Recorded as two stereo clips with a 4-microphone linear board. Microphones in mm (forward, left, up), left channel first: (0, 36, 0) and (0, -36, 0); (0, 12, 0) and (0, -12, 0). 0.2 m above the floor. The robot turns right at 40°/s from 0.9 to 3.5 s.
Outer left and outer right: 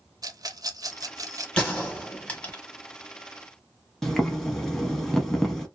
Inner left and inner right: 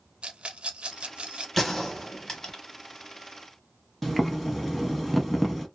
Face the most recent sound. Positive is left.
turn(degrees=5)  # may be behind; listen again after turning